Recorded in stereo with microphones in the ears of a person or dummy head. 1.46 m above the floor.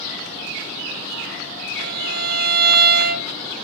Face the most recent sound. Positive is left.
turn(degrees=-60)  # may be behind; listen again after turning